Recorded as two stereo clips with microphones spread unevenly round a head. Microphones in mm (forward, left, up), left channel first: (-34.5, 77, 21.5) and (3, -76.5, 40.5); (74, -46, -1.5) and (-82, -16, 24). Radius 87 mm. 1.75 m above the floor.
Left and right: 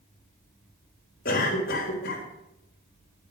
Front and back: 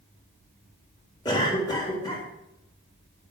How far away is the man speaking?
I don't hear a man speaking.